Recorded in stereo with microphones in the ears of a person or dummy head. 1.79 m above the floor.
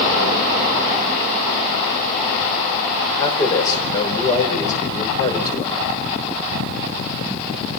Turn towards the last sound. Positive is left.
turn(degrees=25)  # may be behind; listen again after turning